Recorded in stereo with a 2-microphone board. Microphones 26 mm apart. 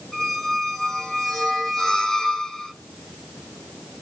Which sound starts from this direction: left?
A squeak, at 0.1 s.